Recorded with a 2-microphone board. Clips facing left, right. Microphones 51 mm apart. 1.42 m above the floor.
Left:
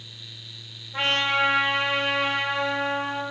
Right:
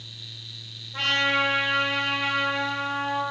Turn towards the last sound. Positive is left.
turn(degrees=20)  # may be behind; listen again after turning